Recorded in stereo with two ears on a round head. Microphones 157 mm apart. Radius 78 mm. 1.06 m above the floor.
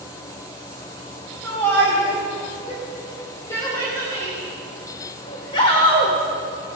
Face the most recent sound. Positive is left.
turn(degrees=35)  # may be behind; listen again after turning